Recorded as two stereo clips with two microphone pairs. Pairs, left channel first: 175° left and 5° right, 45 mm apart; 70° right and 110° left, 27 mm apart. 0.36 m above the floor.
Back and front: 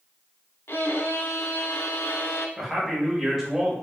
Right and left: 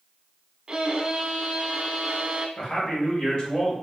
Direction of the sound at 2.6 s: 85° right.